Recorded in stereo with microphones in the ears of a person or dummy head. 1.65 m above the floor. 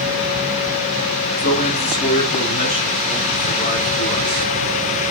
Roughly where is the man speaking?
Left.